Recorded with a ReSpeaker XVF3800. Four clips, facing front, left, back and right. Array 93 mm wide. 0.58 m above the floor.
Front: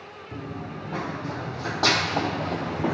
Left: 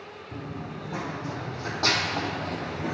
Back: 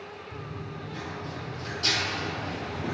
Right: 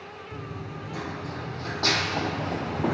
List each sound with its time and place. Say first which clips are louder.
0.3 s running footsteps: left 2 dB, front 7 dB; 30° left, 2.5 m; by 2.9 s 40° right, 1.4 m